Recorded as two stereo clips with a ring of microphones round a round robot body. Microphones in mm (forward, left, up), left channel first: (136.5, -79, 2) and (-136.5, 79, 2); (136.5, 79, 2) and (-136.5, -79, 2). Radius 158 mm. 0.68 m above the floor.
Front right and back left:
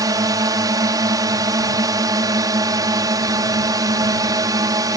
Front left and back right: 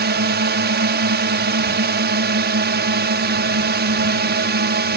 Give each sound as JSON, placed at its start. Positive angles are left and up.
{"t": 0.0, "sound": "a drone", "azimuth_deg": -140}